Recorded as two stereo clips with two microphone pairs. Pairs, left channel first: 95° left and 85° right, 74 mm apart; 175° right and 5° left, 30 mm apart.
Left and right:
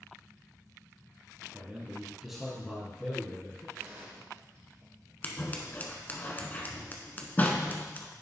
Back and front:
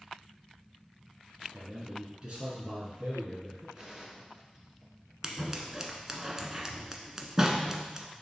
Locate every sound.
1.5 s a man speaking: 50° right, 2 m; by 3.6 s 50° left, 2.5 m
3.8 s a gunshot: 65° right, 2 m
5.2 s scissors: 55° left, 0.9 m